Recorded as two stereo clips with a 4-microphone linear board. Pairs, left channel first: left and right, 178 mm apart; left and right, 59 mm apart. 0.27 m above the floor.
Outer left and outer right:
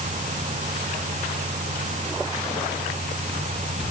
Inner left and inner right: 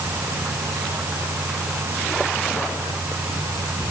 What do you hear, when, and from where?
Only background noise.